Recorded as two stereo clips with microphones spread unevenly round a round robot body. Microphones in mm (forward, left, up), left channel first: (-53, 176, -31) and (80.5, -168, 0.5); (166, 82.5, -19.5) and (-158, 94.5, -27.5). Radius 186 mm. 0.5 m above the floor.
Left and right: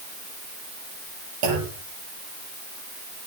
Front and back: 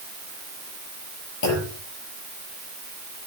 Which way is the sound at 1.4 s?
45° right.